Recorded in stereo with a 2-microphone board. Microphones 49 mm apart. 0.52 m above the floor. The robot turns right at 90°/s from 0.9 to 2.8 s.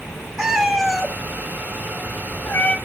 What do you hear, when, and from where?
0.4 s a cat meowing: 5° right (ahead or behind), 1.5 m; by 2.8 s 15° left (ahead or behind), 1.5 m